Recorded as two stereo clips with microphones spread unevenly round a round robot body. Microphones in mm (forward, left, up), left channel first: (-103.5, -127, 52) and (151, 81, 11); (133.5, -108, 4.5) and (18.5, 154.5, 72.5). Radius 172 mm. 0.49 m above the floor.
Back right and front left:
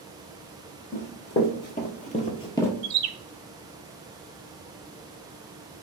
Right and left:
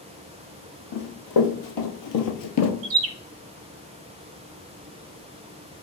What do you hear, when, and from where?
0.9 s running footsteps: 85° right, 1.4 m; by 2.7 s 70° right, 0.5 m
2.8 s a bird: 65° left, 0.6 m